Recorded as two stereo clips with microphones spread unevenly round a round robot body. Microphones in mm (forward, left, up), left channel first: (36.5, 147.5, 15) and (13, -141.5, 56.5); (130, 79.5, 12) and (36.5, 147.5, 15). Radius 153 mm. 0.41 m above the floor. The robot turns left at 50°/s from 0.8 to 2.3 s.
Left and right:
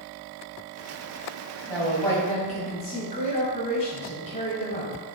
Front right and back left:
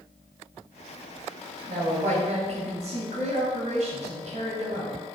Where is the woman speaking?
175° right, 2.5 m; by 5.0 s 150° left, 2.5 m.